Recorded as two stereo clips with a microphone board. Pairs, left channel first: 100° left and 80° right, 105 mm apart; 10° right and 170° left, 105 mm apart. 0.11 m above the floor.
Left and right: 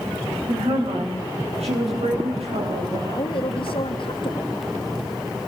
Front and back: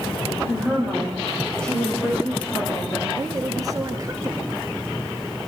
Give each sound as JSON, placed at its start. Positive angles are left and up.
{"t": 0.5, "sound": "a woman speaking", "azimuth_deg": -105, "distance_m": 7.0}
{"t": 3.2, "sound": "a woman speaking", "azimuth_deg": 120, "distance_m": 2.5}